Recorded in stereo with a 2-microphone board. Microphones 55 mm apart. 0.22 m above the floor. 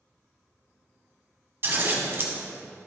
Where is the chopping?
No chopping in this recording.